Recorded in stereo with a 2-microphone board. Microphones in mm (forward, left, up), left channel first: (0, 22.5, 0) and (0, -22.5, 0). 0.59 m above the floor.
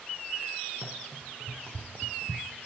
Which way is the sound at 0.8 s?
55° right (ahead or behind).